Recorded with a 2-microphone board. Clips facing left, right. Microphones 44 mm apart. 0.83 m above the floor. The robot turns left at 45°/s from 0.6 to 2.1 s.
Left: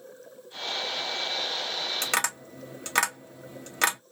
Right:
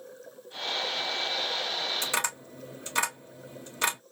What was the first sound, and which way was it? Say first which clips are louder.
Tapping: left 2 dB; 65° left (ahead or behind).